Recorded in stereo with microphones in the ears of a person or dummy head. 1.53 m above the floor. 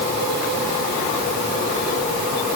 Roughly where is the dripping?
I don't hear dripping.